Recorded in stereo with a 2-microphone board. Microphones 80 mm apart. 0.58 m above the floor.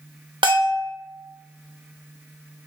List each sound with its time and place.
0.4 s a bell: 80° right, 0.8 m